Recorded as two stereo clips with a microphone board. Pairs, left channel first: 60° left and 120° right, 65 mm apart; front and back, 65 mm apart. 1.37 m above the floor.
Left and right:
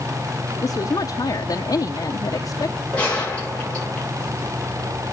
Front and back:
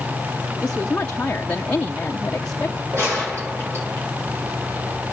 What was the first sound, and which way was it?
A woman speaking, 70° left.